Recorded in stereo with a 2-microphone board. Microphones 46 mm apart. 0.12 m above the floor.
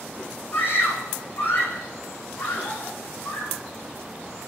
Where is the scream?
50° left (ahead or behind), 9 m.